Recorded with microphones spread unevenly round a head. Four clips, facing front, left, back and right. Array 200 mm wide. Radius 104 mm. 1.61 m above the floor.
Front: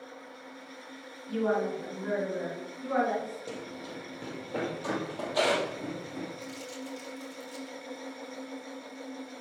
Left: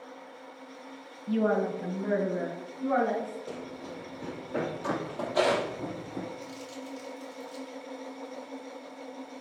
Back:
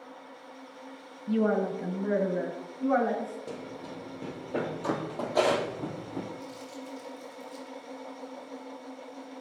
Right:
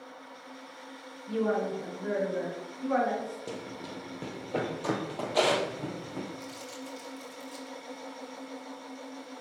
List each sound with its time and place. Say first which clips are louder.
1.3 s a woman speaking: left 2 dB, back 2 dB; 135° left, 1.0 m; by 3.4 s 165° left, 3.5 m
3.5 s running footsteps: even, back 1 dB; 105° right, 2 m; by 6.3 s 170° right, 2 m
6.4 s crumpling: left 1 dB, front 1 dB; 35° right, 4 m